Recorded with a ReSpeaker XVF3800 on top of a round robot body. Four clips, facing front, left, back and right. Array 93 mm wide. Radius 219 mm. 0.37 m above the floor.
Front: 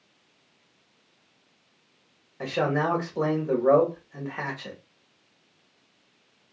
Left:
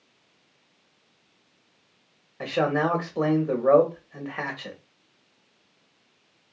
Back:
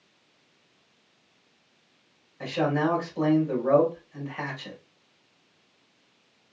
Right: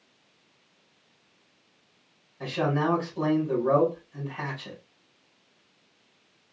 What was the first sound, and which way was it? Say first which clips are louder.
A man speaking: left 3 dB, even; 60° left.